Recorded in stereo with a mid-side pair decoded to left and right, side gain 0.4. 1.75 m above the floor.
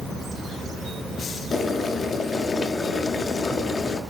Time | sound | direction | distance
1.5 | boiling | 50° left | 0.6 m